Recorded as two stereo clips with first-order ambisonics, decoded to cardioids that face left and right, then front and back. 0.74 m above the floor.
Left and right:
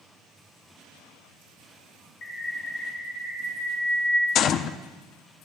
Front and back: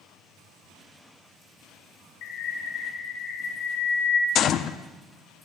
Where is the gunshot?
50° left, 0.6 m.